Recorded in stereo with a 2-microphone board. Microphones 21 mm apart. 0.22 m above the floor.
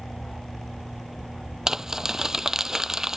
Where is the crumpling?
25° right (ahead or behind).